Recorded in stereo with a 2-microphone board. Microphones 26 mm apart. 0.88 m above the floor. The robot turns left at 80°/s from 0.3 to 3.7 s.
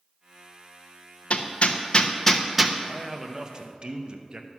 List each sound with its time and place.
1.3 s hammering: 50° left (ahead or behind), 0.7 m; by 2.8 s 10° right (ahead or behind), 0.7 m
2.9 s a man speaking: 20° left, 0.8 m; by 4.5 s 50° right, 0.8 m